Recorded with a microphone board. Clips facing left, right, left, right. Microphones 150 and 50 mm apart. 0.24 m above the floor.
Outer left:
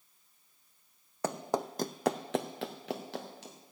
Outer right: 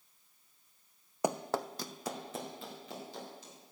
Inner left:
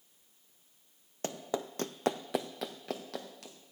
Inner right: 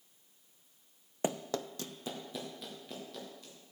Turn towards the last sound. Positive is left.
turn(degrees=70)  # may be behind; listen again after turning